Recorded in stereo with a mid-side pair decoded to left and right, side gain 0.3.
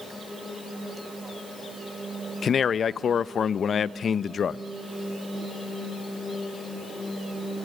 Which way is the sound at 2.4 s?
65° left.